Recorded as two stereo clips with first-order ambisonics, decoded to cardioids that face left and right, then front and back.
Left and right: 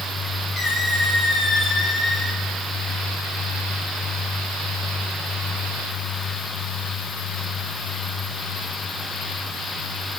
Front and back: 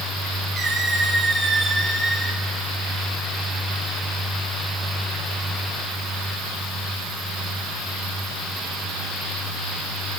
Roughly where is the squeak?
Left.